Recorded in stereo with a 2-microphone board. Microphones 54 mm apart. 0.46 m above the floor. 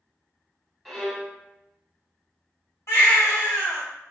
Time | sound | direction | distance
0.8 | a violin | centre (ahead or behind) | 0.8 m
2.9 | a baby crying | 60° left (ahead or behind) | 1.5 m